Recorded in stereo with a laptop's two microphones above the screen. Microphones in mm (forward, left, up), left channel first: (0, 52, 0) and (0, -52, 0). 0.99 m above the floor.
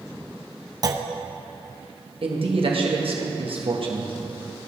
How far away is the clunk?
About 0.6 m.